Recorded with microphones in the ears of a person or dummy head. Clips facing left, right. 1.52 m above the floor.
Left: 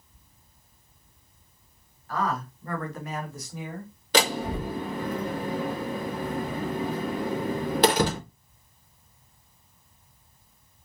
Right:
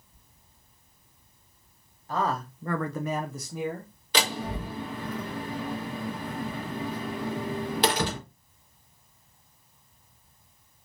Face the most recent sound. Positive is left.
turn(degrees=45)  # may be behind; listen again after turning